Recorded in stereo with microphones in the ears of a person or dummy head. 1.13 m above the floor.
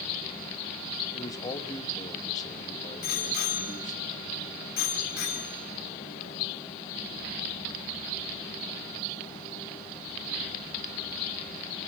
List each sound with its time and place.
1.1 s a man speaking: 25° left (ahead or behind), 2 m
3.0 s a bicycle bell: 65° left (ahead or behind), 5 m